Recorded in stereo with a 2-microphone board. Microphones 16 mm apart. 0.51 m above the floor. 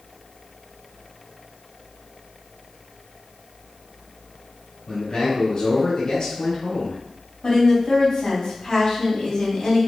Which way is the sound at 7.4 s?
70° left (ahead or behind).